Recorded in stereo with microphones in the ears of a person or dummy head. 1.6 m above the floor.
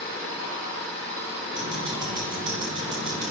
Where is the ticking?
20° right (ahead or behind), 2.0 m.